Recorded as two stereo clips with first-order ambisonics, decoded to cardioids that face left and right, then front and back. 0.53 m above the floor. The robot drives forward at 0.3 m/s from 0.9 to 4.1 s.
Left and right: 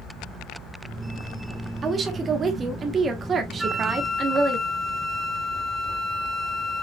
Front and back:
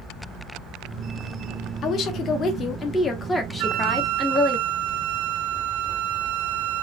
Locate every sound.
1.8 s a woman speaking: 30° right, 1.0 m; by 4.6 s 105° right, 0.8 m
3.6 s a flute: 175° right, 0.6 m